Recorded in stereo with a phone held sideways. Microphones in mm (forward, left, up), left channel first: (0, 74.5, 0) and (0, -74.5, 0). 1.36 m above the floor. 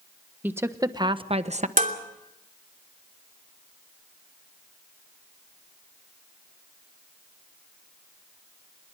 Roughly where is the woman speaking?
Centre.